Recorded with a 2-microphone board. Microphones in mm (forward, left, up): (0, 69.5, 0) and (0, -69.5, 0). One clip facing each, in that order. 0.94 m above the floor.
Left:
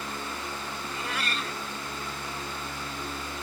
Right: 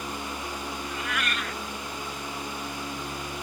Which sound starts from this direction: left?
A cat meowing, at 0.8 s.